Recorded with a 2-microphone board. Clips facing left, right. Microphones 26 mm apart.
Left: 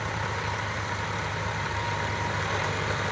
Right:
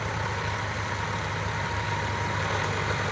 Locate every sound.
0.0 s an engine running: centre (ahead or behind)